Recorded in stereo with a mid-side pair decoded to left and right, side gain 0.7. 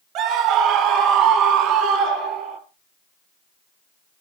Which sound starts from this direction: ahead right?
A scream, at 0.1 s.